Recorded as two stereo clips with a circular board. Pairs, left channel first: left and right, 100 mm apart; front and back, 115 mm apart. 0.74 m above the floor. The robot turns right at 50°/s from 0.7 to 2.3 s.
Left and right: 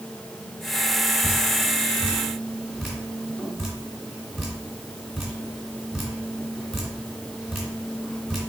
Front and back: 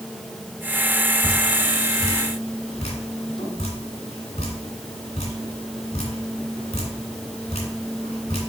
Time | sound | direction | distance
1.2 | dripping | 55° right | 2.5 m